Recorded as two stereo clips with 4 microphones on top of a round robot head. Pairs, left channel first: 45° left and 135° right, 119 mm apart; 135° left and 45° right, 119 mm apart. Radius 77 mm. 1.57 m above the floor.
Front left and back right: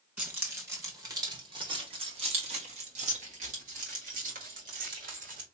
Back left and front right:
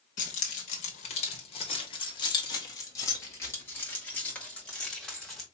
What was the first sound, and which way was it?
Keys jangling, 150° left.